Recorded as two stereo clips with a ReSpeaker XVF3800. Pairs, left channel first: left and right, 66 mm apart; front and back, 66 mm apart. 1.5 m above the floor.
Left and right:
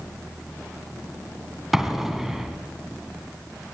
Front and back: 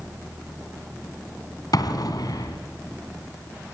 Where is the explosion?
5° right, 3 m.